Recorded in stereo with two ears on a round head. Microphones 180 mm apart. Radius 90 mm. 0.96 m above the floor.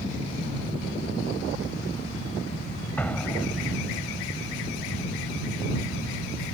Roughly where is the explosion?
Centre.